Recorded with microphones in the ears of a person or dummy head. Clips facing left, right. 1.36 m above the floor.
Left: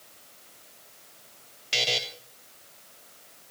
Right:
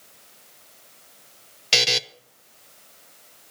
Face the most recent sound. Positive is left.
turn(degrees=-70)  # may be behind; listen again after turning